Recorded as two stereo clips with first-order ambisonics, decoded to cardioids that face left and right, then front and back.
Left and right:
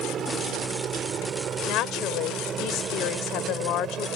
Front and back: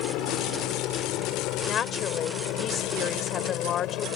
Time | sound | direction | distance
0.0 | a helicopter | 30° right | ?
1.7 | a woman speaking | 55° left | ?